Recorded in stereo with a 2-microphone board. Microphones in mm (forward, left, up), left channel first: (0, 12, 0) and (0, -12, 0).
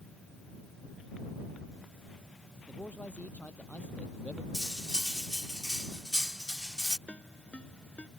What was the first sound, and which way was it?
A man speaking, 80° left.